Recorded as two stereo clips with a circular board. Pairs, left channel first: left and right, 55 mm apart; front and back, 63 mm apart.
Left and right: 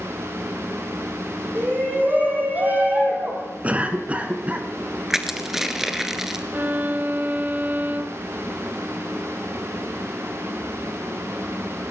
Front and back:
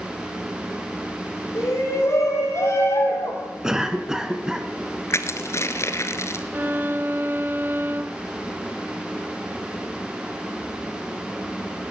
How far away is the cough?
About 1.7 m.